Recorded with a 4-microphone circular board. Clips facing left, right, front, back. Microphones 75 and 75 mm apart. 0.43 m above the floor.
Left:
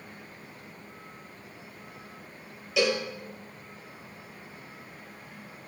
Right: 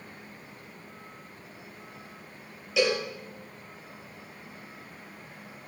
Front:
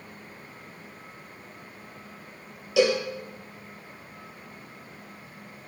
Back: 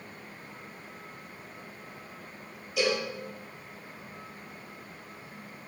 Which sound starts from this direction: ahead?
A cowbell, at 2.8 s.